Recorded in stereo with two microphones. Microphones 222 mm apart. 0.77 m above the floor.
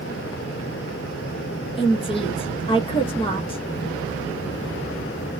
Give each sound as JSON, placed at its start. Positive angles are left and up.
{"t": 1.8, "sound": "a woman speaking", "side_deg": 20, "distance_m": 1.0}